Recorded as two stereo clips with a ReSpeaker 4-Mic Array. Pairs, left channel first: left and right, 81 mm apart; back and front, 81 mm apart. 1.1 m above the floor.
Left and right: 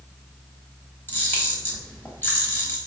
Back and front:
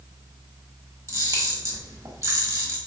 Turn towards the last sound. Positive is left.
turn(degrees=35)